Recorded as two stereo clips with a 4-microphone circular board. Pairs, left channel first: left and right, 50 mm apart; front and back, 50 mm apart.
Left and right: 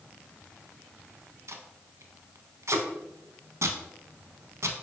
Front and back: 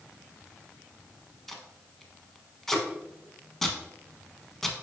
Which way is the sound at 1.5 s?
85° right.